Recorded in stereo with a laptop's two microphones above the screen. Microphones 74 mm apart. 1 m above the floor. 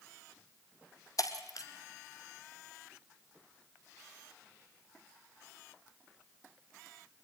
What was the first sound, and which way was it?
Breaking glass, 55° left (ahead or behind).